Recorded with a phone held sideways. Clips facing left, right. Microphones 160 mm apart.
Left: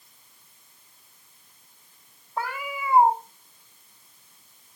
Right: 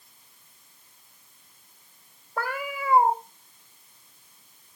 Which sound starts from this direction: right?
A cat meowing, at 2.4 s.